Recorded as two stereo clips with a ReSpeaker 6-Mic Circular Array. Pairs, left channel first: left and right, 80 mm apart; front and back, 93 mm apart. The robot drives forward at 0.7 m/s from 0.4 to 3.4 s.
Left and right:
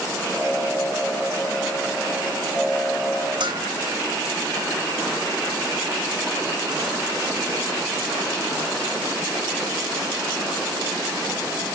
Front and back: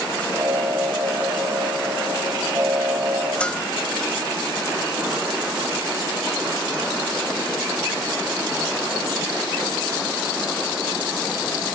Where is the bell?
80° right, 1.5 m.